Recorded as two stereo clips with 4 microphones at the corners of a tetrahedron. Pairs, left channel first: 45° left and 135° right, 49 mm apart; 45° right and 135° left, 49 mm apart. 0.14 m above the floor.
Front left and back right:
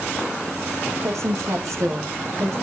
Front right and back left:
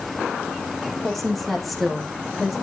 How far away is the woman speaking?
About 7.5 m.